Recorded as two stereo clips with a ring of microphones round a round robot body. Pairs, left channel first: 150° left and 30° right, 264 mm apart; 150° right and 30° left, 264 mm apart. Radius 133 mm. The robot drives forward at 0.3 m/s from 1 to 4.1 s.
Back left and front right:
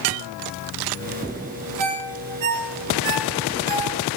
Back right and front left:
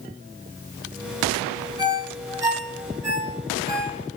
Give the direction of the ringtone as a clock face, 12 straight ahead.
2 o'clock.